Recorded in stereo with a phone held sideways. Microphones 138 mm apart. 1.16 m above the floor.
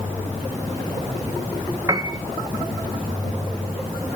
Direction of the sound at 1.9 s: 25° right (ahead or behind).